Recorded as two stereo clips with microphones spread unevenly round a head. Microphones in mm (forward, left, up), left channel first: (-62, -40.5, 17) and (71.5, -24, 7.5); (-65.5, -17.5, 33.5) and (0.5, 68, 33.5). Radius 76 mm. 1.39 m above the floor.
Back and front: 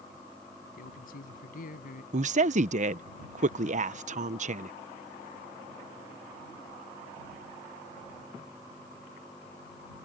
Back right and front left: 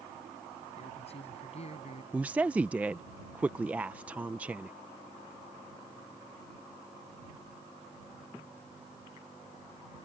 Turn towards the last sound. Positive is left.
turn(degrees=-30)